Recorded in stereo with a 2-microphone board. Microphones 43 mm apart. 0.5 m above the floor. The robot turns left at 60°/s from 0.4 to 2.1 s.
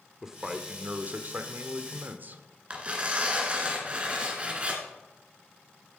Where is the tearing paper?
25° right (ahead or behind), 2 m.